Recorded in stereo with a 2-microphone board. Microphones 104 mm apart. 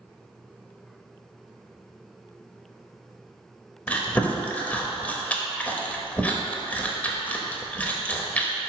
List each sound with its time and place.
3.9 s chewing: 15° left (ahead or behind), 0.8 m